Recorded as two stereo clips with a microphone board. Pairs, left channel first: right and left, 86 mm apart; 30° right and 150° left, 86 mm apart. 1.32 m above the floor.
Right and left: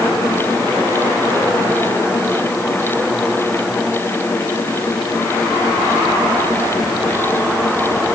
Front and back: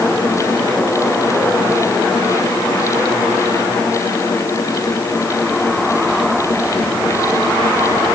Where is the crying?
No crying in this recording.